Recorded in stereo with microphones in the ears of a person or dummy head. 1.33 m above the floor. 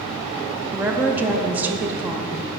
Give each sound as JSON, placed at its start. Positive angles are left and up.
{"t": 0.7, "sound": "a woman speaking", "side_deg": -10, "distance_m": 0.5}